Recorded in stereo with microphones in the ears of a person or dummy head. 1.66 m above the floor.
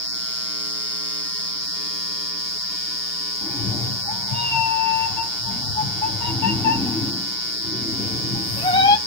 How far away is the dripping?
No dripping in this recording.